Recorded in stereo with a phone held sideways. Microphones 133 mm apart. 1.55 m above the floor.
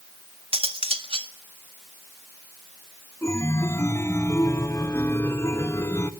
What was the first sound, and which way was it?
Cutlery clinking, 45° right (ahead or behind).